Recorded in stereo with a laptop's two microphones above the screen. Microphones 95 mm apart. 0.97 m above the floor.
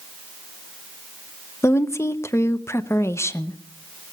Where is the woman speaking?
30° left (ahead or behind), 0.6 m.